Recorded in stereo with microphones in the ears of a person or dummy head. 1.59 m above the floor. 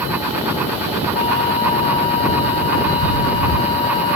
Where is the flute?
35° left (ahead or behind).